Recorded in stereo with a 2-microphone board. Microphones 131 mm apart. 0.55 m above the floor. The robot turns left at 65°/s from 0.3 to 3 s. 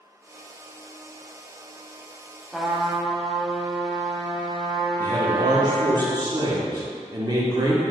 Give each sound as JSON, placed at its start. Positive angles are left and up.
{"t": 2.5, "sound": "a trumpet", "azimuth_deg": 0, "distance_m": 0.5}
{"t": 5.0, "sound": "a man speaking", "side_deg": -30, "distance_m": 0.9}